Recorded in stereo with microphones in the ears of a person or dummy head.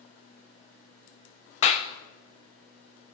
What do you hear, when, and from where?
1.6 s a clap: 40° left (ahead or behind), 0.7 m